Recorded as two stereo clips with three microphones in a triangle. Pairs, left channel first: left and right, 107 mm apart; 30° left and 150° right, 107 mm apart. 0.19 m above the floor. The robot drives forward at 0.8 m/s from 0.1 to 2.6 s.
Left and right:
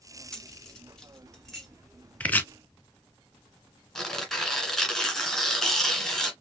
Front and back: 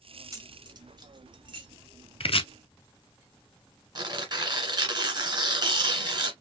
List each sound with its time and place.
0.3 s keys jangling: 170° left, 1.1 m; by 1.7 s 175° left, 2 m
2.2 s chopping: 15° left, 0.8 m; by 2.5 s 20° left, 0.6 m
4.0 s tearing paper: 175° left, 1.9 m